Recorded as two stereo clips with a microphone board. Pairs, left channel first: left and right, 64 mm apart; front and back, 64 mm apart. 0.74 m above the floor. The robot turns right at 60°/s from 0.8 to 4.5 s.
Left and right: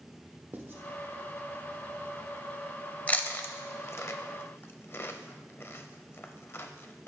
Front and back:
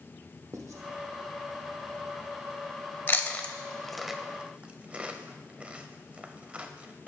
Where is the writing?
145° right, 0.9 m.